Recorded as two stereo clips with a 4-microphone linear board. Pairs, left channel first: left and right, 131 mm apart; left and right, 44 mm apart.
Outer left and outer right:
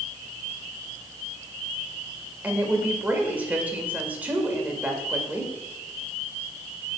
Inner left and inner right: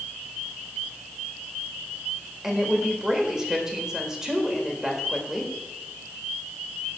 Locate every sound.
2.4 s a woman speaking: 10° right (ahead or behind), 1.7 m